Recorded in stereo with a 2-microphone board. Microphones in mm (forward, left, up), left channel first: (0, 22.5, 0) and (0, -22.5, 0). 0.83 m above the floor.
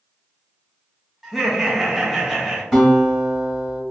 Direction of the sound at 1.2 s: 10° right (ahead or behind).